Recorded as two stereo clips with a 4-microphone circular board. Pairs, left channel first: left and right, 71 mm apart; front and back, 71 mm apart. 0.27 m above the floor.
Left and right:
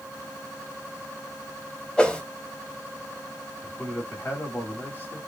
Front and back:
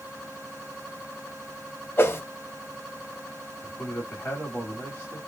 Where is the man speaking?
50° left, 1.3 m.